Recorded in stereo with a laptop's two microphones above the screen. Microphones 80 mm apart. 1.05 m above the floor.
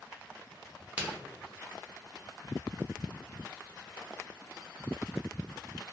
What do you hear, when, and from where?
1.0 s a crack: 15° right (ahead or behind), 1.2 m